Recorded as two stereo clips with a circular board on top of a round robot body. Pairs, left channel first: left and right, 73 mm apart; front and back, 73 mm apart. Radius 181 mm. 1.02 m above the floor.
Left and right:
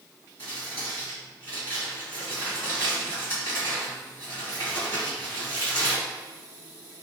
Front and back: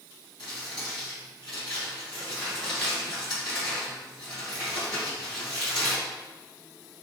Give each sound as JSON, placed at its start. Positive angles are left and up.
{"t": 0.4, "sound": "crumpling", "azimuth_deg": -35, "distance_m": 1.9}